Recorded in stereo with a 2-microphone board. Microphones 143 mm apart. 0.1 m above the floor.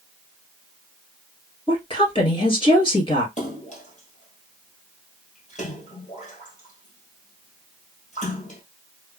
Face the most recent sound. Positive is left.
turn(degrees=55)  # may be behind; listen again after turning